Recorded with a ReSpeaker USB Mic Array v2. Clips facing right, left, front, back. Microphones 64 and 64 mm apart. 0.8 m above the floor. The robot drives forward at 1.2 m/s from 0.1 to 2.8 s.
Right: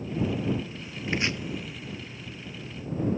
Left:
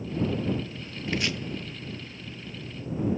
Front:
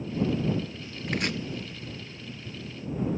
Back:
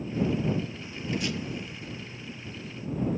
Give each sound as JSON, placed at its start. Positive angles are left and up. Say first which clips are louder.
{"t": 1.1, "sound": "chopping", "louder": "right 1 dB, front 1 dB", "azimuth_deg": -20, "distance_m": 0.8}